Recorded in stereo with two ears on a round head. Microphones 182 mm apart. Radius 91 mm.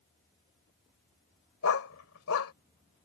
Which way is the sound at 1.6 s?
80° left.